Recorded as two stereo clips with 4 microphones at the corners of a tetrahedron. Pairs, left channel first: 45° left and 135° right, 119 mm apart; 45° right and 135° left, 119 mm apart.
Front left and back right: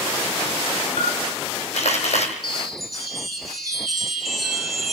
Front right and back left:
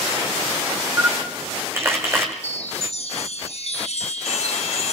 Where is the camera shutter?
65° left, 3.5 m.